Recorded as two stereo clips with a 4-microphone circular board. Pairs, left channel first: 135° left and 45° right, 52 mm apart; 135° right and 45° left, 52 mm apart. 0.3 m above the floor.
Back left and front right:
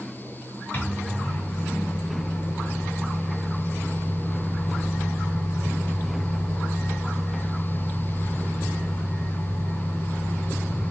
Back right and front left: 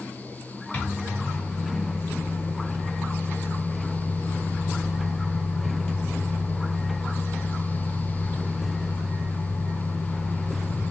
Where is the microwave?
175° right, 2 m.